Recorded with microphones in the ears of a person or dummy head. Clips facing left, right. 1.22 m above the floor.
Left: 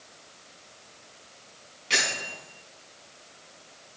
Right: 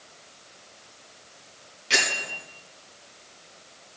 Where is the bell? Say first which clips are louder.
Right 2 dB; 5° right (ahead or behind), 4 m.